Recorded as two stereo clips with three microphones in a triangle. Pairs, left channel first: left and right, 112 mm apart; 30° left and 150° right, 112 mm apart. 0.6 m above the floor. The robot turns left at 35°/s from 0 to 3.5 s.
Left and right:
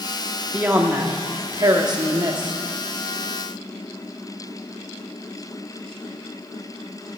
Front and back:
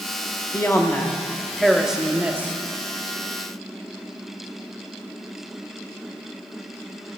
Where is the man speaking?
15° right, 1.0 m; by 2.5 s 90° right, 1.0 m.